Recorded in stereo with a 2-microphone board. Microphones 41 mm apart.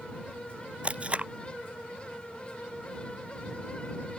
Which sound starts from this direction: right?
Tape being pulled, at 0.8 s.